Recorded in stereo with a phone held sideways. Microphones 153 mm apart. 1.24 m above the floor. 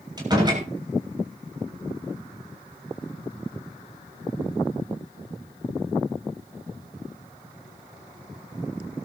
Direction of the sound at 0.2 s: 25° right (ahead or behind).